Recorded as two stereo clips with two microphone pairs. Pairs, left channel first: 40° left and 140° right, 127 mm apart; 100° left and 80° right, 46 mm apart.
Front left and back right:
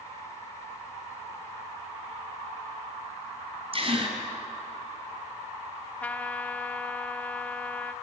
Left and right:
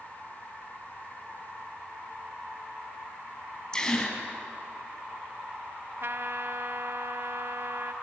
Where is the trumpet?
40° right, 0.7 m.